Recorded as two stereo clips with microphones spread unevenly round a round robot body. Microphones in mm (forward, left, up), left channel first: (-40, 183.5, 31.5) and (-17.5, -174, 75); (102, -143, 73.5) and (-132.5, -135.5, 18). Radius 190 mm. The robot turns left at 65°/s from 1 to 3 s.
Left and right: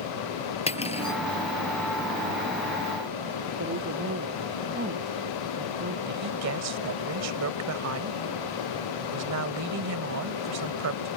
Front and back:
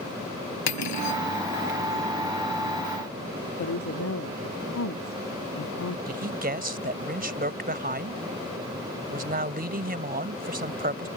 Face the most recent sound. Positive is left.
turn(degrees=-135)